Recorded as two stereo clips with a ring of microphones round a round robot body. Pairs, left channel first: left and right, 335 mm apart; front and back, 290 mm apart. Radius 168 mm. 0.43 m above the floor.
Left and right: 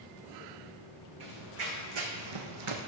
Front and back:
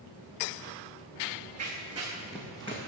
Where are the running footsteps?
115° right, 2 m; by 2.9 s 65° right, 1.2 m.